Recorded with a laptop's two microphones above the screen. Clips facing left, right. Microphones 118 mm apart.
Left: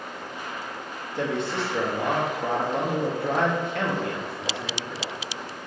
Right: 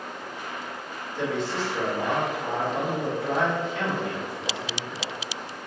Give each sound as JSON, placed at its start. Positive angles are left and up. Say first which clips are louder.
{"t": 1.2, "sound": "a man speaking", "louder": "left 1 dB", "side_deg": 65, "distance_m": 0.8}